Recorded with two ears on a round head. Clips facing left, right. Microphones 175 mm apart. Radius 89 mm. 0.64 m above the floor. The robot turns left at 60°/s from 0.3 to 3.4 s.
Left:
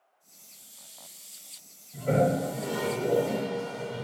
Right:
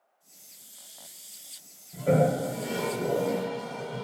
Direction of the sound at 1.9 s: 75° right (ahead or behind).